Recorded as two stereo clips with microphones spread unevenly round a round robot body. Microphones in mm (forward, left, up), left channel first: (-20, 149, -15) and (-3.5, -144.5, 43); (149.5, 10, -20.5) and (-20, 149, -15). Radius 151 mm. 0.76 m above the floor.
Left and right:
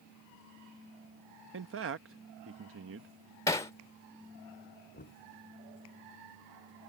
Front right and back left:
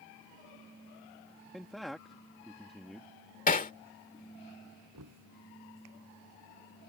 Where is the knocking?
155° left.